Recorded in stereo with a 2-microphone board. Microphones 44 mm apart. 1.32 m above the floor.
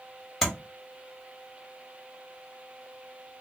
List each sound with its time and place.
0.4 s tapping: 5° left (ahead or behind), 1.7 m